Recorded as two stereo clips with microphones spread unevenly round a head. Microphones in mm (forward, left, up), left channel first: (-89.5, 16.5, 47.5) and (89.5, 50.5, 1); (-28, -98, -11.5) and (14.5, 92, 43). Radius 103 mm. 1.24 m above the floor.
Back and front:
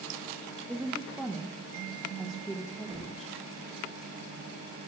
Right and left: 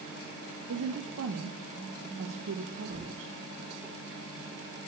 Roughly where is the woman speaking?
Left.